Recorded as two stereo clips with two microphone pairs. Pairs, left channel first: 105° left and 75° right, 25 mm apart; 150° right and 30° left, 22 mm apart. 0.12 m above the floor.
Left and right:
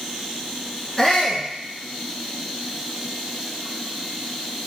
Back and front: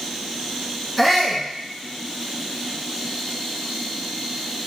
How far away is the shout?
About 1.1 m.